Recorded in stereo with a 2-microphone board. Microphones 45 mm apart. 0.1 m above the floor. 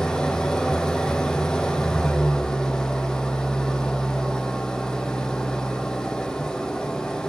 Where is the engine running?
15° left (ahead or behind), 1.1 m.